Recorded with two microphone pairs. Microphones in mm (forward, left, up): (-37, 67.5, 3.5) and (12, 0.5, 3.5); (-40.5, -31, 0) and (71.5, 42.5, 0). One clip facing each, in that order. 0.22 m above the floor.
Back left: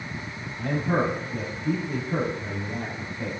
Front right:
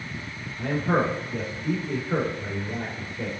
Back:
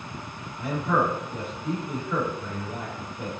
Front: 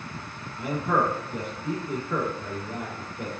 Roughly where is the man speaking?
Ahead.